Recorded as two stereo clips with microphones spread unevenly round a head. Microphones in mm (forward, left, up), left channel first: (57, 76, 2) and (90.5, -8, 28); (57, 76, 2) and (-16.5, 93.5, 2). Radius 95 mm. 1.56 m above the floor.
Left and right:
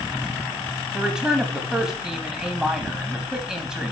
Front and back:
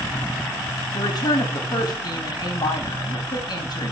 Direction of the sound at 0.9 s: 10° left.